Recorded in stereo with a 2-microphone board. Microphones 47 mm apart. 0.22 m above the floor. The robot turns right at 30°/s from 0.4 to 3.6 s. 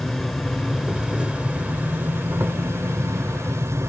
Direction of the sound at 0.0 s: Straight behind.